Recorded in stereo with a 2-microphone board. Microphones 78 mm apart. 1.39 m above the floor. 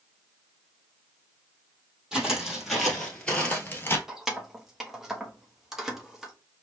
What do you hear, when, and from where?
2.1 s footsteps: 5° right (ahead or behind), 2.5 m; by 4.0 s 30° left (ahead or behind), 1.5 m
4.1 s keys jangling: 5° right (ahead or behind), 1.0 m